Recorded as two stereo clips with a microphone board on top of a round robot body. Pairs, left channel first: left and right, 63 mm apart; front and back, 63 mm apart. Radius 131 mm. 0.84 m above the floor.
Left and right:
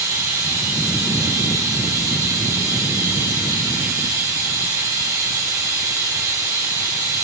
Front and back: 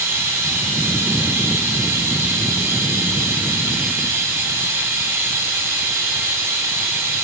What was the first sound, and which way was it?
Running water, 125° right.